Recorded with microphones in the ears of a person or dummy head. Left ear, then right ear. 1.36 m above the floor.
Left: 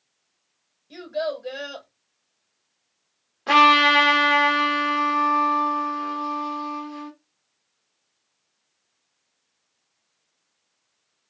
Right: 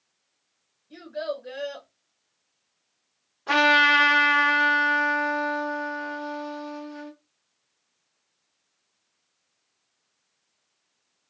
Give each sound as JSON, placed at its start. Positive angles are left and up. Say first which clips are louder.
{"t": 0.9, "sound": "a child speaking", "louder": "left 4 dB", "side_deg": 80, "distance_m": 1.9}
{"t": 3.5, "sound": "a trumpet", "louder": "left 3 dB", "side_deg": 30, "distance_m": 1.3}